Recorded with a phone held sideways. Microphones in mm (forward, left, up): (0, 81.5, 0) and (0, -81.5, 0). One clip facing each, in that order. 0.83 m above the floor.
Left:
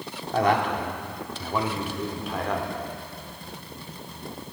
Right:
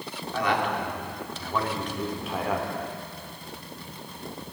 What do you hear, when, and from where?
0.3 s a man speaking: 50° left (ahead or behind), 2 m; by 2.7 s 10° right (ahead or behind), 2.5 m